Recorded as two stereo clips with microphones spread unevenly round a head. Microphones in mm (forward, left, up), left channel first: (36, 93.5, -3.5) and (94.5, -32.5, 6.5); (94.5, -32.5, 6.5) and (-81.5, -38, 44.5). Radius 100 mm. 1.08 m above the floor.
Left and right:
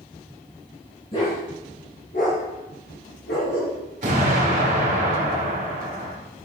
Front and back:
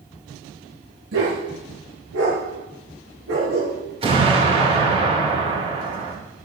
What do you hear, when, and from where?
1.1 s a dog barking: straight behind, 6.5 m; by 3.8 s 150° left, 6.5 m
4.0 s an explosion: 120° right, 5.5 m